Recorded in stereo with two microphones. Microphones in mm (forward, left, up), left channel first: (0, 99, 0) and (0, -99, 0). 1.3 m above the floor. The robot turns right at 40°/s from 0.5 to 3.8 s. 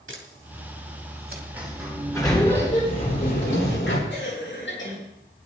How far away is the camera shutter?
About 2.5 m.